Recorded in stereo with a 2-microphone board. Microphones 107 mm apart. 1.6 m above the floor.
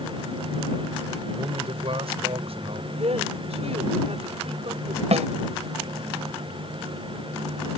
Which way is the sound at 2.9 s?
70° right (ahead or behind).